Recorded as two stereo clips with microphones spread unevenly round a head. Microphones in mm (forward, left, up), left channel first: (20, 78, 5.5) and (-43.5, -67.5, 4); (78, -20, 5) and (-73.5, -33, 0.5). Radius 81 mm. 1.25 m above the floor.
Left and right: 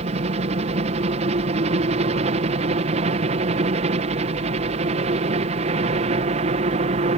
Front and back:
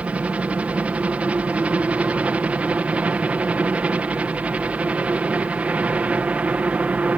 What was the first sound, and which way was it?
A helicopter, 100° right.